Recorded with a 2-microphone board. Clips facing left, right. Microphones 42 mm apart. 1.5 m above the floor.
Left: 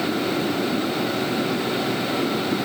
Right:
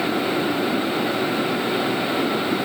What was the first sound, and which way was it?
Only background noise.